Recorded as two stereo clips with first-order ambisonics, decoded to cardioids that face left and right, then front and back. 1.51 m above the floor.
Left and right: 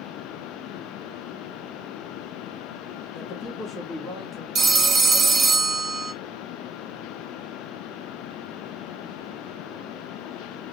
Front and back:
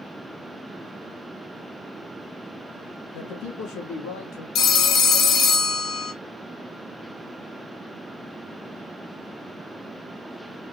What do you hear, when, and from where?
3.1 s a man speaking: 25° left, 2.5 m
4.5 s a phone ringing: 35° right, 0.8 m